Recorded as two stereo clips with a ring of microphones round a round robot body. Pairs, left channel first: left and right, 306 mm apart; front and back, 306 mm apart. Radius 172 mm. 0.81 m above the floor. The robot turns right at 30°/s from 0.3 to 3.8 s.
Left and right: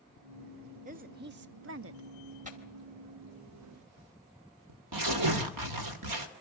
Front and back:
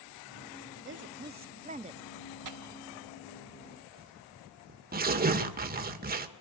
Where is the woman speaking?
145° right, 0.8 m; by 2.3 s 100° right, 0.8 m.